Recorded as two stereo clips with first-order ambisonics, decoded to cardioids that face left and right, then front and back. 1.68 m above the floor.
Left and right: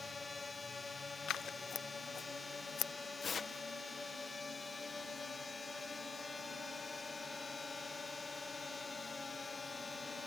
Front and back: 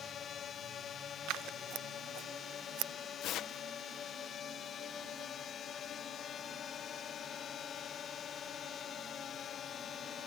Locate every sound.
0.0 s a drone: 25° left
1.3 s scissors: 145° left
3.2 s tearing paper: 25° left